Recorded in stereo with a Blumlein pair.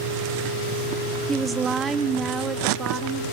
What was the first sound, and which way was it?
A woman speaking, 15° right.